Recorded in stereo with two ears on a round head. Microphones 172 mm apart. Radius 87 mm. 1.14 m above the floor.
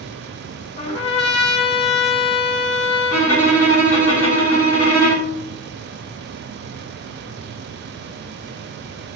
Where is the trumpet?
30° left (ahead or behind), 0.9 m.